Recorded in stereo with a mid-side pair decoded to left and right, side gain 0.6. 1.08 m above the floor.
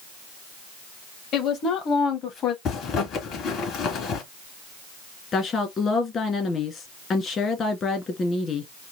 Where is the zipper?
55° left, 2.5 m.